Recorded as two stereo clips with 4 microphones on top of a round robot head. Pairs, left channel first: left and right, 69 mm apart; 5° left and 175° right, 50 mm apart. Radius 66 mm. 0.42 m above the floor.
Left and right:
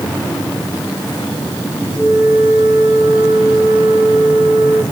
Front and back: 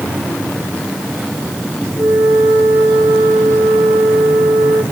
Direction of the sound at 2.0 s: 165° right.